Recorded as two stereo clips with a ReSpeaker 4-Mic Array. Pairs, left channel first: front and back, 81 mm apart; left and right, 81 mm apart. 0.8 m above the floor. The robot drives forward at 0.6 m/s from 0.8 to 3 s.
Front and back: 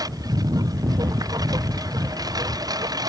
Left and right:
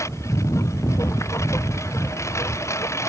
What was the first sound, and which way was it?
A lawn mower, 140° left.